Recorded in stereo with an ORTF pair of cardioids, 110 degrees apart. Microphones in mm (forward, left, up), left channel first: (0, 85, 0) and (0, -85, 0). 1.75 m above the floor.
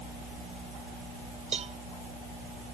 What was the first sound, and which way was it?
A cowbell, 40° right.